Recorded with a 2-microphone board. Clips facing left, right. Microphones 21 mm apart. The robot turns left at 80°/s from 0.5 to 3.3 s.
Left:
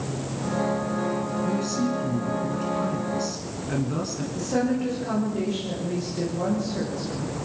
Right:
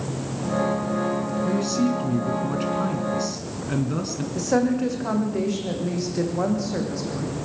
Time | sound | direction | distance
1.4 | a man speaking | 10° right | 1.7 m
4.3 | a woman speaking | 40° right (ahead or behind) | 8 m